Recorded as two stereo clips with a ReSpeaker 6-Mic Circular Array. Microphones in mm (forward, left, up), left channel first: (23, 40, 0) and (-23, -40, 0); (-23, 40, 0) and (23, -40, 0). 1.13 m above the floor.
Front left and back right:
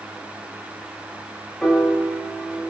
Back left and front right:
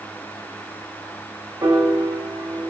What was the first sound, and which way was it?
A piano, 25° right.